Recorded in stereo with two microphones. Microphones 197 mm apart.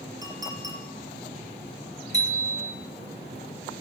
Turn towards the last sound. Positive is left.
turn(degrees=35)  # may be behind; listen again after turning